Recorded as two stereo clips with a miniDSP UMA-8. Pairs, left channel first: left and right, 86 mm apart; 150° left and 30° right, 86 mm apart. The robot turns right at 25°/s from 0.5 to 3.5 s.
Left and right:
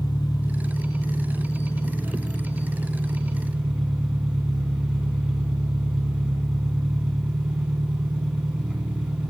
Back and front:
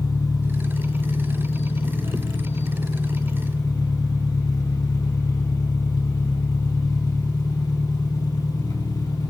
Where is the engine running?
115° left, 1.3 m; by 9.3 s 170° right, 1.3 m.